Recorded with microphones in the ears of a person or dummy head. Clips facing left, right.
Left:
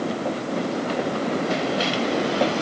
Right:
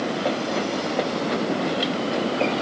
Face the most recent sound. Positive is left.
No sound to turn to.